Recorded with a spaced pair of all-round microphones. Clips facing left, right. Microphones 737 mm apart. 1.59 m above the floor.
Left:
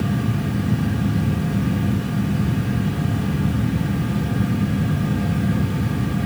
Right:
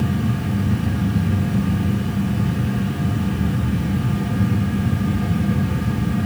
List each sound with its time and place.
0.0 s a fan: 5° left (ahead or behind), 7 m